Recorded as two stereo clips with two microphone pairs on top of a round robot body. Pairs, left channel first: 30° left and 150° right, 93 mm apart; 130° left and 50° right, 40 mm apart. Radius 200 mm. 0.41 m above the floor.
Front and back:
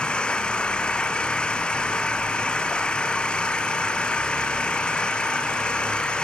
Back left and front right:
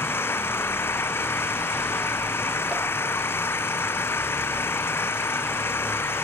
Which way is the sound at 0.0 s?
110° left.